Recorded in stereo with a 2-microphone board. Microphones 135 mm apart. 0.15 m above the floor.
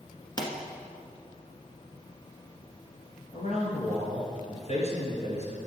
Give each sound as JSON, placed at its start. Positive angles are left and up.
{"t": 0.4, "sound": "a pop", "side_deg": 35, "distance_m": 1.4}
{"t": 3.3, "sound": "a man speaking", "side_deg": 55, "distance_m": 3.0}